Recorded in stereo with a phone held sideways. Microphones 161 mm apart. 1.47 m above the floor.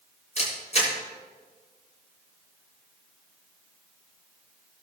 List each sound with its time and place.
0.4 s a camera shutter: 45° left (ahead or behind), 6 m